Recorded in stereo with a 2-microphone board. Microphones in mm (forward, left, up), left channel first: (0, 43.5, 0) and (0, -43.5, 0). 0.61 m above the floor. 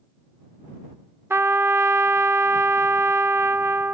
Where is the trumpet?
30° right (ahead or behind).